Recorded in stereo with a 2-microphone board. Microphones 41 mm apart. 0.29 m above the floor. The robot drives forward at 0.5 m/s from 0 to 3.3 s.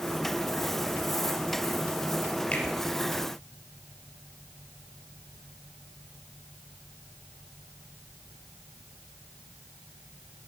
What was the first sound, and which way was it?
A finger snap, 35° left (ahead or behind).